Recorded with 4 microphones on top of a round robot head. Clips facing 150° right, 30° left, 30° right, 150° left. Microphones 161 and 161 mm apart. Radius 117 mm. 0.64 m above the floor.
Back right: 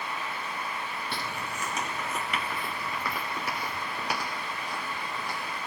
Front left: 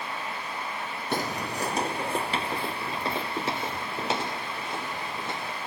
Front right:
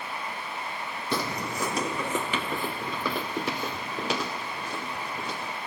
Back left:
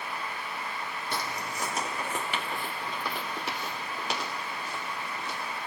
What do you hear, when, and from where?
1.1 s footsteps: 15° right; by 5.6 s 40° right